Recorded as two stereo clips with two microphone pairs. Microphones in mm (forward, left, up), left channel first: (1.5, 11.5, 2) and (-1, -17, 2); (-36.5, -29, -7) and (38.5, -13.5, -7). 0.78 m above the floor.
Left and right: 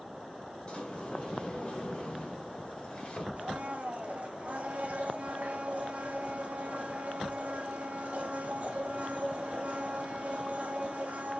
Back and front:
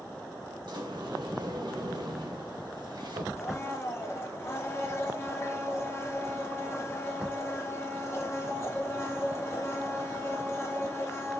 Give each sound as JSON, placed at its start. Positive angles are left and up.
{"t": 0.7, "sound": "a sliding door", "azimuth_deg": 30, "distance_m": 1.2}
{"t": 3.4, "sound": "a blender", "azimuth_deg": -115, "distance_m": 0.9}